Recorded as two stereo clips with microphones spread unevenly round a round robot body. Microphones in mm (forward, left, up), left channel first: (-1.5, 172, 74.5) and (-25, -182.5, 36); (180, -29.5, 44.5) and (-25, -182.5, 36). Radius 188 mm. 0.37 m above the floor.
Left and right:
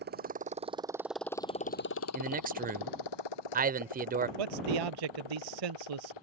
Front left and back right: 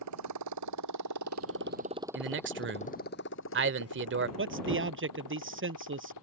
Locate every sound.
0.0 s a motorcycle: 155° right; by 6.2 s 75° left
2.1 s a man speaking: 145° right
4.4 s a man speaking: 105° right